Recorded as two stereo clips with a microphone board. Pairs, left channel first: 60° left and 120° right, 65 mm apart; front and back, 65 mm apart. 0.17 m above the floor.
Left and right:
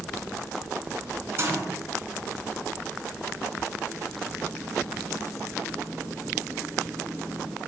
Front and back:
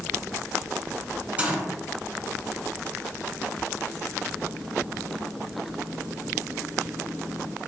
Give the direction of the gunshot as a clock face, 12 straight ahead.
4 o'clock.